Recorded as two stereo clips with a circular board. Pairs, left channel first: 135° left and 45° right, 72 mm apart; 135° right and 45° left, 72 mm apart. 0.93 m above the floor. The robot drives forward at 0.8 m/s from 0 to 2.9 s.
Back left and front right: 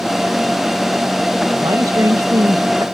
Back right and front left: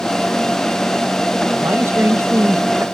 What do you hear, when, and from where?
1.6 s a man speaking: 10° right; by 2.9 s 15° right